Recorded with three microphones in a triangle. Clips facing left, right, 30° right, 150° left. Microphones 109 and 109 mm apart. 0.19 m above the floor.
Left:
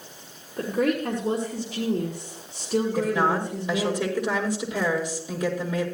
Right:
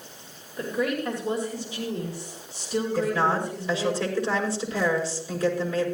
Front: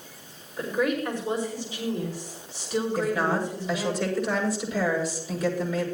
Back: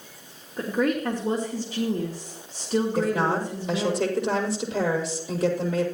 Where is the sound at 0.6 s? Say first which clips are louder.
Left 3 dB, back 1 dB; 110° left, 4 m.